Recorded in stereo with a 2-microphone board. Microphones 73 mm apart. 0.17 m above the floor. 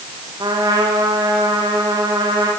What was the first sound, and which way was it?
A trumpet, 80° right.